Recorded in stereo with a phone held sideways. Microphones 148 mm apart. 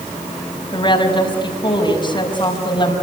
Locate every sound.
0.7 s a woman speaking: 30° left (ahead or behind), 6 m